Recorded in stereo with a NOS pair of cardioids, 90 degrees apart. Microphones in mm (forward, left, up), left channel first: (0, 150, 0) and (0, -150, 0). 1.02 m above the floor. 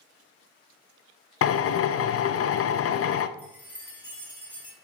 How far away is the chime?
About 2 m.